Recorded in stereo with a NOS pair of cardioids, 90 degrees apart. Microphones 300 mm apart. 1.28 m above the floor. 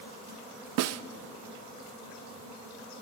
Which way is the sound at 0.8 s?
60° right.